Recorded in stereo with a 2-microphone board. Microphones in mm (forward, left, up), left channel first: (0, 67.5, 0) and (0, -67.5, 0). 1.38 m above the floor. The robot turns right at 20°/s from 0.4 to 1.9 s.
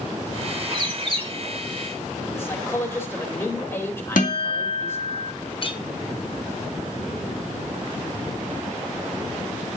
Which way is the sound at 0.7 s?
35° right (ahead or behind).